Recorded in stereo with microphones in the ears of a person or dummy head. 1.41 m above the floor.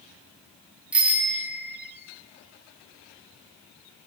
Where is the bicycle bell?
10° right (ahead or behind), 2 m.